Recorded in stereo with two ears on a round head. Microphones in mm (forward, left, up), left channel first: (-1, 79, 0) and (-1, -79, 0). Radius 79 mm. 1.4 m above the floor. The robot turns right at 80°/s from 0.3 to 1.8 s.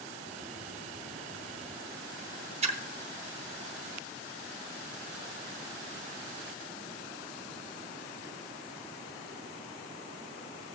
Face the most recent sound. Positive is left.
turn(degrees=-35)  # may be behind; listen again after turning